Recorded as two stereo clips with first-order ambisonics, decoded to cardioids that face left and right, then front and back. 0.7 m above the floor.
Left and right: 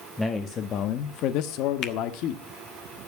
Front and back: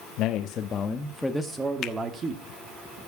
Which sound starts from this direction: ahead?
A man speaking, at 0.2 s.